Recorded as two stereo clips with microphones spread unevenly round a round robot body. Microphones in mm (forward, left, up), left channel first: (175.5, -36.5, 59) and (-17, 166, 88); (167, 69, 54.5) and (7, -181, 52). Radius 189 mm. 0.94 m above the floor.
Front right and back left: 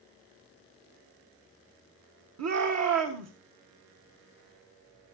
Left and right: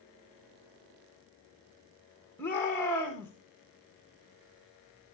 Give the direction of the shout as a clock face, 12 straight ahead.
7 o'clock.